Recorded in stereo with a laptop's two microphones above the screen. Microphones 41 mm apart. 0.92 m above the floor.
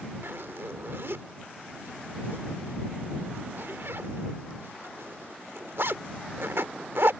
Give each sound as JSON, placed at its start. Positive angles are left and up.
{"t": 0.2, "sound": "a zipper", "side_deg": -75}